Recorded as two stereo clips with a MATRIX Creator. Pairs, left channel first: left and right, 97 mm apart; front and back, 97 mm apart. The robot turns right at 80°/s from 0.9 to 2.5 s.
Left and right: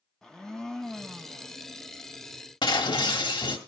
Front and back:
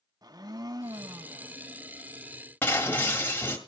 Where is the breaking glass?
65° left, 2 m.